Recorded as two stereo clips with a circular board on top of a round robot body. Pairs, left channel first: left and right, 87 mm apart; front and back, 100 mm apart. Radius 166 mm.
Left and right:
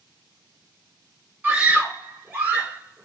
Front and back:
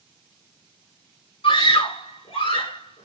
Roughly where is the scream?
Ahead.